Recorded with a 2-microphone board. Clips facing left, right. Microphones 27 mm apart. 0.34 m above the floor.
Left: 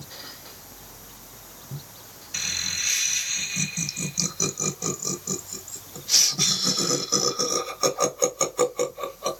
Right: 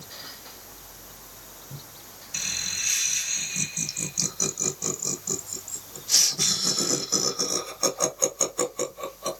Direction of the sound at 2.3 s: 20° left (ahead or behind).